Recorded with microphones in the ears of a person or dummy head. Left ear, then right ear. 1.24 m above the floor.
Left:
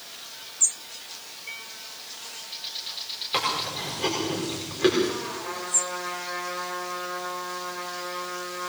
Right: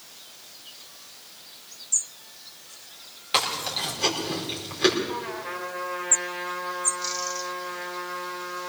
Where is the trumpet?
25° right (ahead or behind), 3.5 m.